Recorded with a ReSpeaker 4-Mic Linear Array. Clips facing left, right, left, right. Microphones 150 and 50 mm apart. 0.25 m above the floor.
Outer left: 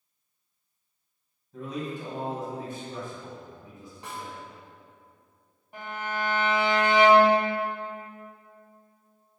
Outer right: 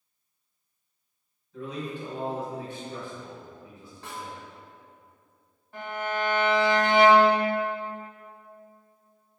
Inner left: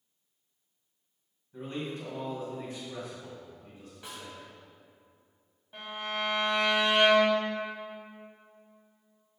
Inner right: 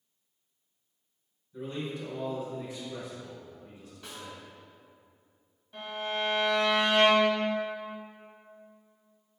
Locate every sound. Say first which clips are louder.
1.5 s a man speaking: outer left 1 dB, inner right 1 dB; 45° left (ahead or behind), 1.5 m
4.0 s a snare drum: even, even; 20° left (ahead or behind), 1.9 m
5.7 s a violin: outer right 3 dB, inner right 2 dB; 15° left (ahead or behind), 1.4 m